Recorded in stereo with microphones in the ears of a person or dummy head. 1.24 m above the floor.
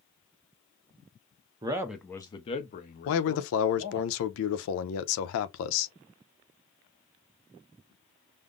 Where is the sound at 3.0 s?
75° left (ahead or behind), 0.6 m.